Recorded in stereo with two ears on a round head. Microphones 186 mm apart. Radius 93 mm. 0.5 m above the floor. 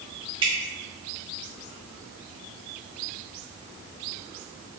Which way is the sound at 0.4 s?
25° right (ahead or behind).